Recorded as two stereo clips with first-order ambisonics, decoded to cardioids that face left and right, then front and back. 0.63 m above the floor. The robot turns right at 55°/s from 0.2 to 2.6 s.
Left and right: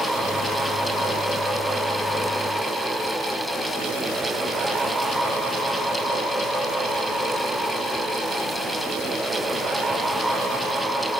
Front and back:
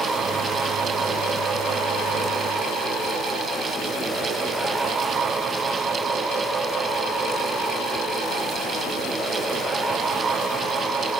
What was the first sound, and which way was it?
Only background noise.